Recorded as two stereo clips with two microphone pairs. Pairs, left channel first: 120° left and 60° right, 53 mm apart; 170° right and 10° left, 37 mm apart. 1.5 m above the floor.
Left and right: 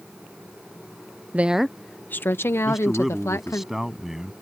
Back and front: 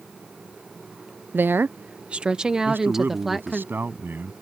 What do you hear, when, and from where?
1.3 s a woman speaking: 5° right; by 3.6 s 95° left
2.6 s a man speaking: 25° left